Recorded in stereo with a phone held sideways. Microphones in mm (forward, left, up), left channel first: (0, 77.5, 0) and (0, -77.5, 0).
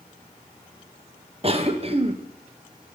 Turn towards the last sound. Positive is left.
turn(degrees=-40)  # may be behind; listen again after turning